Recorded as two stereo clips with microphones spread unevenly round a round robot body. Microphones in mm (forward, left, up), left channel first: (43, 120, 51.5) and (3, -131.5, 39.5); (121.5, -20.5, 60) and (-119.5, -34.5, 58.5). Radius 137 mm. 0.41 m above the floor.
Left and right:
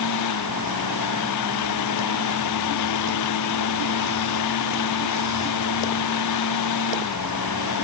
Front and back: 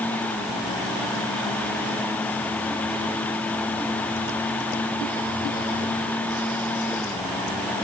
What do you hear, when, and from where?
Only background noise.